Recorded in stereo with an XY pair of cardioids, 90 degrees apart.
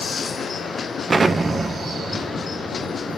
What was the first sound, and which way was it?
An explosion, 30° right.